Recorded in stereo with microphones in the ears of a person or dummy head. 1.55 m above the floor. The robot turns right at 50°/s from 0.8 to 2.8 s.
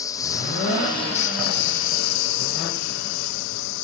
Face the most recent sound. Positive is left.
turn(degrees=115)